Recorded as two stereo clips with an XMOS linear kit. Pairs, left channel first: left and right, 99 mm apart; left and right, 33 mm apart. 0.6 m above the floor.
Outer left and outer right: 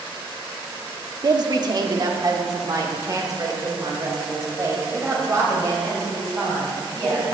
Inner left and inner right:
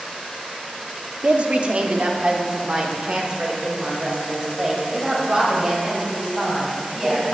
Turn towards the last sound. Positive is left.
turn(degrees=-30)  # may be behind; listen again after turning